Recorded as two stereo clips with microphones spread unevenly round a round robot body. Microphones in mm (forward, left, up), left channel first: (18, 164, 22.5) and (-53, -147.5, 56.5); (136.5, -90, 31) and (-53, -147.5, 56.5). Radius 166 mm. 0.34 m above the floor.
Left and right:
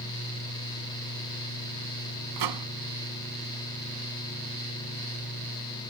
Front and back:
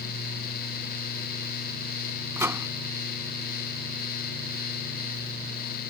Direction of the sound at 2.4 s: 85° right.